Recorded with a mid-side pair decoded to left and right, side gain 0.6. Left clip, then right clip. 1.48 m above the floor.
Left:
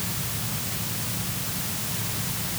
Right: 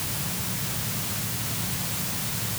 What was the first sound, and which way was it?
Only background noise.